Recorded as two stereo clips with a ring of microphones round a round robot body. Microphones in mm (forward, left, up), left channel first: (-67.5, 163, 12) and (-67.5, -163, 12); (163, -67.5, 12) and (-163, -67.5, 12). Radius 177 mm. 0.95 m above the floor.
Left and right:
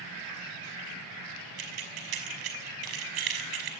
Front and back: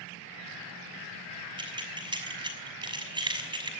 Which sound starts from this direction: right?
Keys jangling, at 1.6 s.